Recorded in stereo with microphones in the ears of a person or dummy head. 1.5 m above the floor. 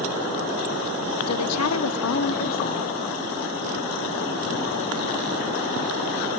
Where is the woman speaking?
80° left, 1.2 m; by 3.0 s 15° left (ahead or behind), 0.7 m.